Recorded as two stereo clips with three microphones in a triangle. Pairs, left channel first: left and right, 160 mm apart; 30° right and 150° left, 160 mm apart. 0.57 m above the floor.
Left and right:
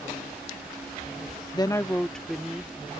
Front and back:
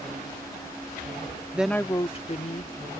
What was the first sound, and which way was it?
A woman speaking, 85° left.